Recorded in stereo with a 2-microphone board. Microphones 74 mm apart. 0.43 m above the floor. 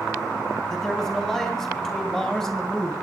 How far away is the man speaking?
About 3.5 m.